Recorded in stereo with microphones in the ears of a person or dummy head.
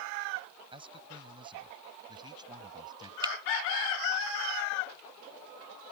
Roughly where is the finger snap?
Right.